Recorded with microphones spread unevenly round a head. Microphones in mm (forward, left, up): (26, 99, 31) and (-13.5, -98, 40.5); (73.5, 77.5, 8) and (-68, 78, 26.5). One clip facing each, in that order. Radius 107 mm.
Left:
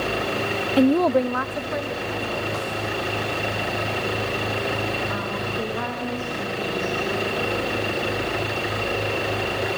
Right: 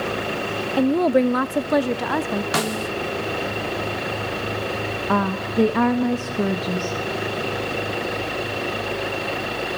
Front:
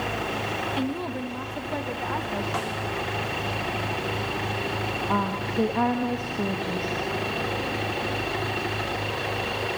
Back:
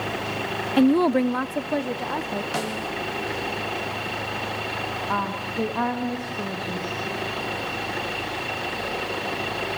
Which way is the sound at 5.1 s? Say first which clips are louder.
Right 5 dB, front 2 dB; 80° right.